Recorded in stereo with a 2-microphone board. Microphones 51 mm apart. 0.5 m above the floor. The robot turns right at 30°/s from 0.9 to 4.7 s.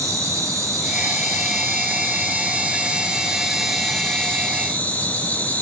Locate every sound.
0.0 s an insect: 85° right, 2.5 m; by 5.6 s 30° left, 2.5 m